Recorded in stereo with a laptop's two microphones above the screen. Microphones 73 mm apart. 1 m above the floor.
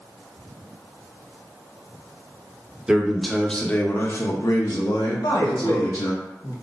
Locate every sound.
2.9 s a man speaking: 10° right (ahead or behind), 0.9 m; by 6.1 s 80° left, 1.5 m
5.1 s a man speaking: 70° left (ahead or behind), 1.0 m